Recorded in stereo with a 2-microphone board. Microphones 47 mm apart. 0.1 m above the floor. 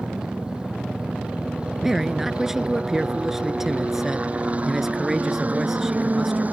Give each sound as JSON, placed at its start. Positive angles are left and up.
{"t": 0.0, "sound": "a helicopter", "side_deg": -15}
{"t": 1.8, "sound": "a man speaking", "side_deg": -5}